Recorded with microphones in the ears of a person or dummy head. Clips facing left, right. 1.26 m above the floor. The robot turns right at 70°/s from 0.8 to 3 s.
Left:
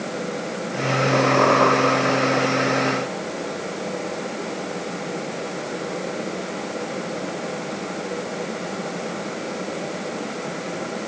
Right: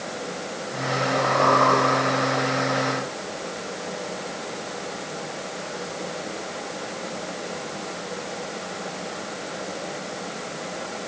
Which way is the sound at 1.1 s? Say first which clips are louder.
Left 3 dB; 100° left.